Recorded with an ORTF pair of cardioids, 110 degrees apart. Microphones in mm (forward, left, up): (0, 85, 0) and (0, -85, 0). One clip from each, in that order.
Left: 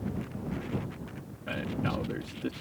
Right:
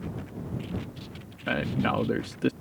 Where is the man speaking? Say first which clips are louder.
Right 6 dB; 50° right.